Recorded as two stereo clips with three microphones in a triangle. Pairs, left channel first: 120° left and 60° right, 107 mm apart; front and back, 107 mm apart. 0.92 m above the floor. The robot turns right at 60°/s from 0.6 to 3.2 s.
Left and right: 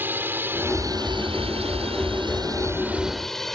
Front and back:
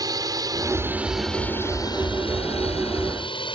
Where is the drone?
130° right; by 3.5 s 35° left.